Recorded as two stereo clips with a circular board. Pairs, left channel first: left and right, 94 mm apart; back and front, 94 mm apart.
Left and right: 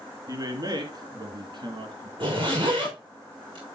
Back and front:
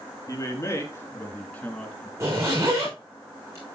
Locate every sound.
0.3 s a man speaking: 130° right, 3.5 m; by 2.1 s 100° right, 3 m
2.2 s a zipper: 60° right, 6 m